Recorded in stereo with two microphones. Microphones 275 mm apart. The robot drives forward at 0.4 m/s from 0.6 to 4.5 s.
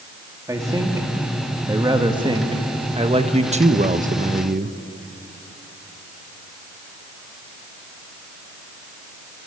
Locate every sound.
0.5 s a man speaking: 10° right (ahead or behind), 2.5 m; by 4.8 s 35° right (ahead or behind), 0.8 m